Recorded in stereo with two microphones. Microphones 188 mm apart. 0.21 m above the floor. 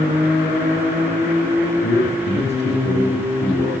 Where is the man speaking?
65° left (ahead or behind), 8.5 m.